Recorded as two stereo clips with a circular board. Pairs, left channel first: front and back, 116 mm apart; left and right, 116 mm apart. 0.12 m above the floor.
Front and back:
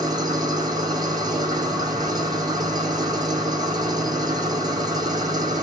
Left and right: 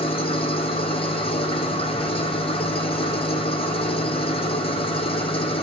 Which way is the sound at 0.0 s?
125° left.